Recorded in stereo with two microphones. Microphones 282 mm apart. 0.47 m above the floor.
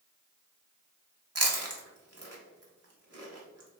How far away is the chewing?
About 0.9 m.